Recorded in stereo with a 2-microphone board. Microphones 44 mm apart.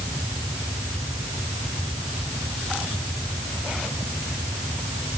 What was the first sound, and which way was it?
Only background noise.